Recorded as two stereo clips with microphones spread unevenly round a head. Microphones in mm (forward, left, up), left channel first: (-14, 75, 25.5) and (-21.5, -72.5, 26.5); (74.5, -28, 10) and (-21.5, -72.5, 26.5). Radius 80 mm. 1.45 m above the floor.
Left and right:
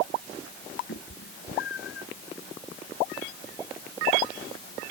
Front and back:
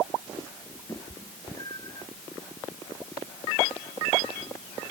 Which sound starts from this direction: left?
A cat meowing, at 0.9 s.